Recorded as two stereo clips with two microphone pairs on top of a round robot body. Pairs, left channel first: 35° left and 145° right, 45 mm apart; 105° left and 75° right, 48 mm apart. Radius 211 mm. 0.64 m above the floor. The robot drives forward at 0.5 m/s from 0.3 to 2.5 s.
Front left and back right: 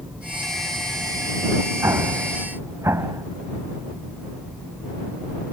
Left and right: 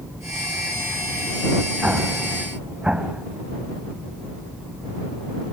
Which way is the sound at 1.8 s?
140° right.